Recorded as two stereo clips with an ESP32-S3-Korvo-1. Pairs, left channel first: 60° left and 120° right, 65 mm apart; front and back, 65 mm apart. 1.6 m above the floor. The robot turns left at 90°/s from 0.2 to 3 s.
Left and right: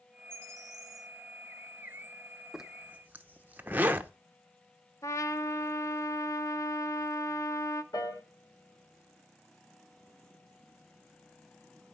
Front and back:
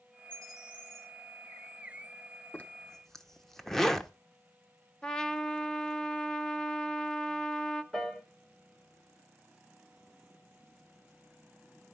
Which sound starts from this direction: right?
A bird, at 0.3 s.